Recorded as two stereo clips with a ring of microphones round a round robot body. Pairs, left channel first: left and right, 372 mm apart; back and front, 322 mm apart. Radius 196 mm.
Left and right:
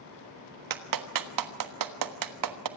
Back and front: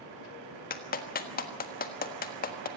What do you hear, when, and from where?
0.7 s a clap: 115° right, 1.4 m